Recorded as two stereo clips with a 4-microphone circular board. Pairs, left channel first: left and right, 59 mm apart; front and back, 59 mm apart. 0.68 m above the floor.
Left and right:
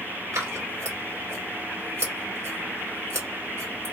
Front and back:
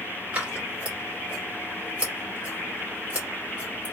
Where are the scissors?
115° right, 1.6 m.